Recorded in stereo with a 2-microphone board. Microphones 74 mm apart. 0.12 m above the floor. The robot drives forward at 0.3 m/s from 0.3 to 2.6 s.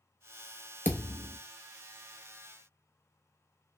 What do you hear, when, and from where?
0.8 s a thud: 30° left (ahead or behind), 0.7 m; by 1.4 s 25° left (ahead or behind), 0.8 m